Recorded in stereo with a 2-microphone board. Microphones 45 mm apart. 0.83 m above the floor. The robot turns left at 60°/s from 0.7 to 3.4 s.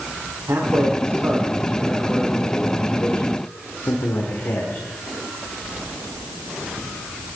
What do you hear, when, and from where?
0.5 s a man speaking: 95° right, 2.0 m; by 4.8 s 105° left, 2.0 m